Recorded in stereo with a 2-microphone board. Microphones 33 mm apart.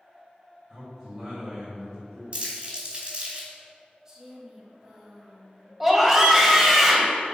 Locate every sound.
0.7 s a man speaking: 5° right (ahead or behind), 1.8 m
2.3 s crumpling: 35° right (ahead or behind), 2.5 m
4.0 s a woman speaking: 15° right (ahead or behind), 1.2 m
5.8 s a scream: 5° right (ahead or behind), 1.3 m